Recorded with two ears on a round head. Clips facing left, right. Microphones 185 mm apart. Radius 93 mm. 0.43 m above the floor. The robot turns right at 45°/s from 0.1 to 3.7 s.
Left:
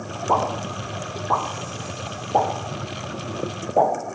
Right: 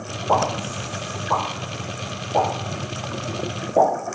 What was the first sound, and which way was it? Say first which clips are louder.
A pop: right 2 dB; 45° left (ahead or behind).